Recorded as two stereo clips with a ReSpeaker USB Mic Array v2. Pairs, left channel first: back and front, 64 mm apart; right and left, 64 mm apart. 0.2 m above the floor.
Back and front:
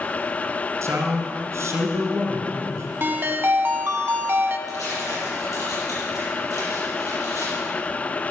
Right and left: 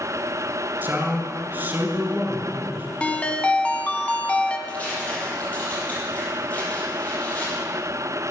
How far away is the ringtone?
About 0.8 m.